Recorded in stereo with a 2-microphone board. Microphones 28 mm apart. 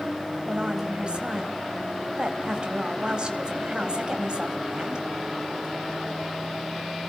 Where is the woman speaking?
35° right (ahead or behind), 3.5 m.